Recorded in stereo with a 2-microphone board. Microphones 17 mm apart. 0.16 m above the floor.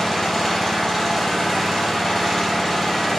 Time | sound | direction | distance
0.0 | an engine running | 20° left (ahead or behind) | 2.5 m